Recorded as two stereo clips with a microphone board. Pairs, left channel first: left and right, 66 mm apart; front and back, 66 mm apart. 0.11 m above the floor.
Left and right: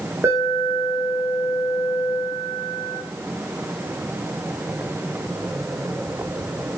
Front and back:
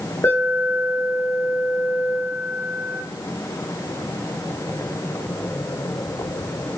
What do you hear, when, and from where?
0.2 s an alarm: 40° right, 2.5 m